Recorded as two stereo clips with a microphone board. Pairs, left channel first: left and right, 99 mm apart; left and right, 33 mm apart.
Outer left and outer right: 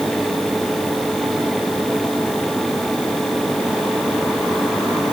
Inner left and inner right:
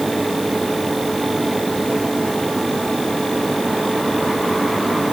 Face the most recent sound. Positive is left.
No sound to turn to.